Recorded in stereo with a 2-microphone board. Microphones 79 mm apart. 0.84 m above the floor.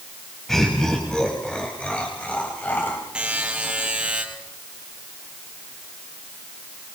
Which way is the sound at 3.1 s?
10° right (ahead or behind).